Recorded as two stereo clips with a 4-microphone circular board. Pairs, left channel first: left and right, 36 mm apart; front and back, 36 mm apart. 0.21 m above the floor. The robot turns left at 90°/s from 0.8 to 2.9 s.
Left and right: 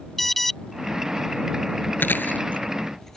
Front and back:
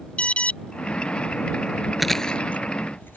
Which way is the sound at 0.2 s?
10° left.